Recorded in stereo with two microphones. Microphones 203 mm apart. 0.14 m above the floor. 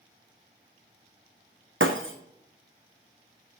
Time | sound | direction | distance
1.8 | breaking glass | 75° right (ahead or behind) | 1.6 m